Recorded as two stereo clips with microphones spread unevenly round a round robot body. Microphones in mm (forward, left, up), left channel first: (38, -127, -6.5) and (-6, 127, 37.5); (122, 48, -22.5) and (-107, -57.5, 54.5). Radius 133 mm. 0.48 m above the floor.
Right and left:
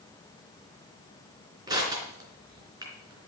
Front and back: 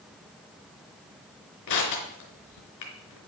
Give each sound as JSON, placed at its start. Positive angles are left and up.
{"t": 1.7, "sound": "crushing", "azimuth_deg": 25, "distance_m": 3.5}